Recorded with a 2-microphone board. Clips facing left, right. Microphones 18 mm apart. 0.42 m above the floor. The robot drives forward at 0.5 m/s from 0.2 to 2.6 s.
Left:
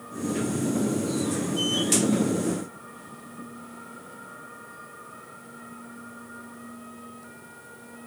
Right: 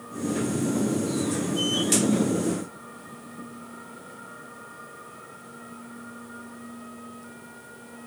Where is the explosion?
No explosion in this recording.